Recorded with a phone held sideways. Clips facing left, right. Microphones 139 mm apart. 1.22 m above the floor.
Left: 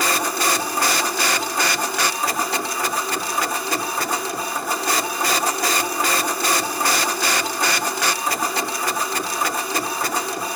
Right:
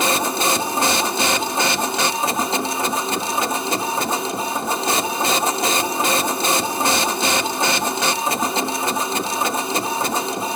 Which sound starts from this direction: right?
A machine running, at 0.0 s.